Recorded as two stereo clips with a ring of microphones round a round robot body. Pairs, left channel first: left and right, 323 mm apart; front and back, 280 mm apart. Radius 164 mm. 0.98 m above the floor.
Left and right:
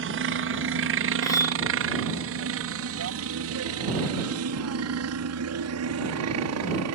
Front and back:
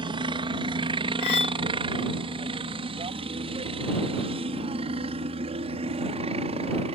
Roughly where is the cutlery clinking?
Ahead.